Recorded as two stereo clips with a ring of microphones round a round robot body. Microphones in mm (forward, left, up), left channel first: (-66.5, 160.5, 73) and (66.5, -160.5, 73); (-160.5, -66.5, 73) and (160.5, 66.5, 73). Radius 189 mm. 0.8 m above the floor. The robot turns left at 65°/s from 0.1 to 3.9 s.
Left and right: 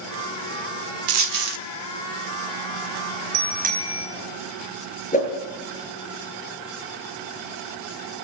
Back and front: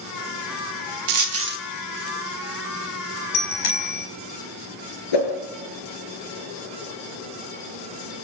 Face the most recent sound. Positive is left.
turn(degrees=-175)